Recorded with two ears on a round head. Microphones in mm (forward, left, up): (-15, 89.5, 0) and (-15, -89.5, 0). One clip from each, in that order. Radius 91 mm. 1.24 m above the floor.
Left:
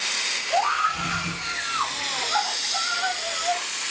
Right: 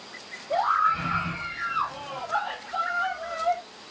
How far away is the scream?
About 5.5 m.